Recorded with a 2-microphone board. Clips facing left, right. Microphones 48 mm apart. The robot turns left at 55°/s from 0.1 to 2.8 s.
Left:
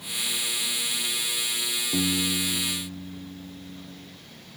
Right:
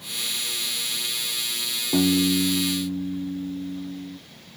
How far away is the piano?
About 0.9 m.